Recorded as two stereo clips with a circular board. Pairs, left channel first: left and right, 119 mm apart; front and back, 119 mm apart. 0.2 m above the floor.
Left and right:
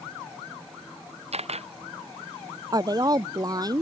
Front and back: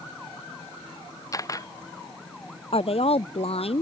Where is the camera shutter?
60° right.